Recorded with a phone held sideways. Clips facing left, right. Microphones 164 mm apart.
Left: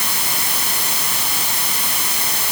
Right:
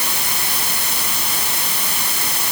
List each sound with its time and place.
Only background noise.